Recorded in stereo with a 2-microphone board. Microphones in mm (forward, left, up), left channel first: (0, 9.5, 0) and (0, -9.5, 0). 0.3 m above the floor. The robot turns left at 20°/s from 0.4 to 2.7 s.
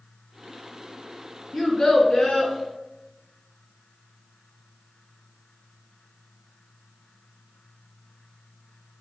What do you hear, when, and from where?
1.5 s a child speaking: 35° left (ahead or behind), 1.9 m; by 2.5 s 50° left (ahead or behind), 1.9 m